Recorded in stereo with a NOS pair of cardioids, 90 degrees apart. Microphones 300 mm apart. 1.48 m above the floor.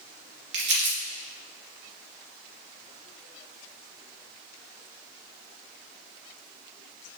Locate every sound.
0.5 s crumpling: 40° right, 2.5 m